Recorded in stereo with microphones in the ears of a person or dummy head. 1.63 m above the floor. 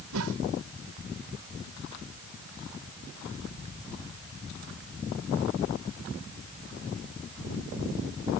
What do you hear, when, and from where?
0.1 s a whoosh: 75° right (ahead or behind)